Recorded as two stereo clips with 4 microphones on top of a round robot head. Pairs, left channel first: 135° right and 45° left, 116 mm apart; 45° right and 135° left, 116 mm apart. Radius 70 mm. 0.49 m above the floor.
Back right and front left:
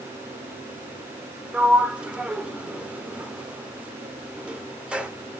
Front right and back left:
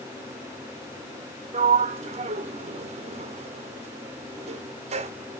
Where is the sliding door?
125° left, 0.5 m.